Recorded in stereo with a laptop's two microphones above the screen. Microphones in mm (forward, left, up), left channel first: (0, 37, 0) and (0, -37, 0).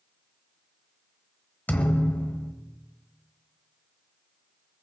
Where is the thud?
20° left (ahead or behind), 1.4 m.